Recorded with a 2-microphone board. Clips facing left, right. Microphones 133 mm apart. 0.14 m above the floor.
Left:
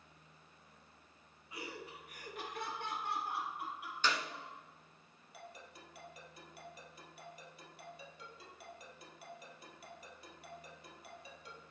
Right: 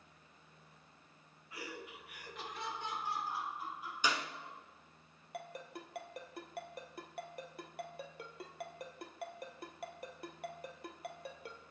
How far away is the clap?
About 0.9 m.